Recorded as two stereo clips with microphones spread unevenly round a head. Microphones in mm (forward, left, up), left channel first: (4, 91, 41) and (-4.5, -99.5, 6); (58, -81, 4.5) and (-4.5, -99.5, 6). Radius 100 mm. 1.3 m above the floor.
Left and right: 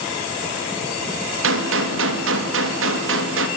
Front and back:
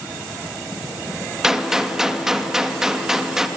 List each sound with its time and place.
1.4 s a gunshot: 80° right, 2.5 m